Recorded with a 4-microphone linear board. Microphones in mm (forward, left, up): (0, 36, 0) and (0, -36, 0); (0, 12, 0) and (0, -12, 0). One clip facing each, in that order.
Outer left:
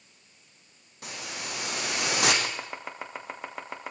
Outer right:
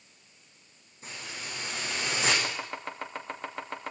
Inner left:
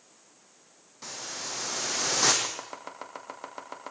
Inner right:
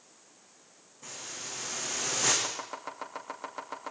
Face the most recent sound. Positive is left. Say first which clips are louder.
# even, even
turn(degrees=10)  # may be behind; listen again after turning